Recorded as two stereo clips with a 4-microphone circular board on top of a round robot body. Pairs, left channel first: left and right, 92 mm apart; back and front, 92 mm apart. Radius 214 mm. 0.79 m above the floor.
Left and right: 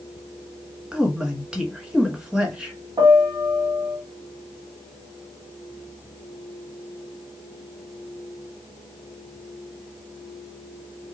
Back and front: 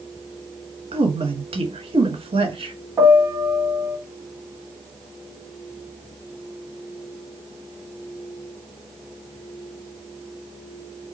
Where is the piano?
60° right, 1.7 m.